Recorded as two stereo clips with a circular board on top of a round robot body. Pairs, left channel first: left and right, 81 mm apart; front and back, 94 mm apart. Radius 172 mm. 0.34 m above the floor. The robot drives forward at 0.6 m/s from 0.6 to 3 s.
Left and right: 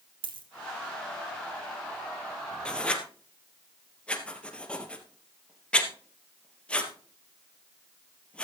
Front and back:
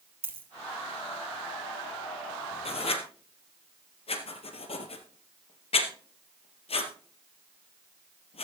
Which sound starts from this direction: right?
A dropped coin, at 0.2 s.